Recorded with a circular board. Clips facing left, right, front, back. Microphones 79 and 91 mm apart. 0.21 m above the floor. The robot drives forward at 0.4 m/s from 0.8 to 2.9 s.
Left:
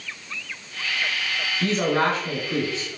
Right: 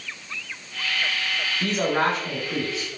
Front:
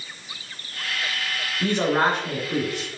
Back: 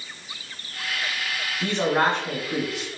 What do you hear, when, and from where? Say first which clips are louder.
1.6 s a man speaking: left 1 dB, front 1 dB; 50° right, 1.4 m; by 3.0 s 105° right, 1.4 m